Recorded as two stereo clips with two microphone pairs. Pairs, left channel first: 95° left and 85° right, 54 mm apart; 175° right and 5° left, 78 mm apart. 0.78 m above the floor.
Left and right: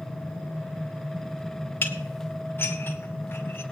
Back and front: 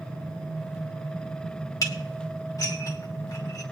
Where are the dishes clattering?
145° left, 1.7 m.